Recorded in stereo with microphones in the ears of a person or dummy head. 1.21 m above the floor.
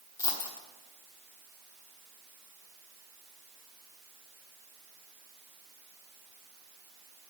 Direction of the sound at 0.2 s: 20° left (ahead or behind).